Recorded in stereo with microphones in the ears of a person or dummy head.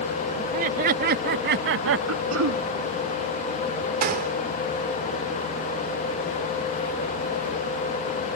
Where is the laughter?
45° right (ahead or behind); by 2.0 s 70° right (ahead or behind).